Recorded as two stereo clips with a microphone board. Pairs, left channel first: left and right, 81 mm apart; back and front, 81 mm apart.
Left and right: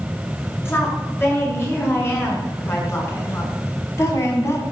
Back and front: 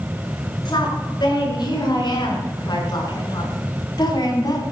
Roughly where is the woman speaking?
Behind left.